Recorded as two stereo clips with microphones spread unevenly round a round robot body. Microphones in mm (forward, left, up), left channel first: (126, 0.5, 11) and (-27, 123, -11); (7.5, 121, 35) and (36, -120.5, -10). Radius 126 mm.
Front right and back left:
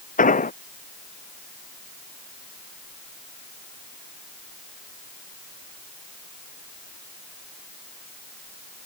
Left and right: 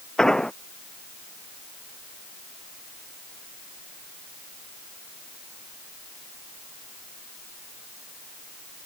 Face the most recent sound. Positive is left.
turn(degrees=10)